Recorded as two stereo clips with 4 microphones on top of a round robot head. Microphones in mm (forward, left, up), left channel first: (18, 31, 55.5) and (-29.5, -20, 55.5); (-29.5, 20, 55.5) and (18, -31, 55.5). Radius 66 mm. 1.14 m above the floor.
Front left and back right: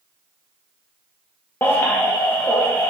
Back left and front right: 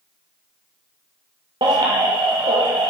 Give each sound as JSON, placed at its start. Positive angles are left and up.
{"t": 1.6, "sound": "a baby crying", "azimuth_deg": -20, "distance_m": 0.5}